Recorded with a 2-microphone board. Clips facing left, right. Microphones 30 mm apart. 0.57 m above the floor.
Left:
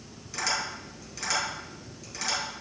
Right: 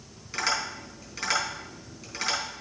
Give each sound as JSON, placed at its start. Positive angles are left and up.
{"t": 0.3, "sound": "tapping", "side_deg": -25, "distance_m": 4.0}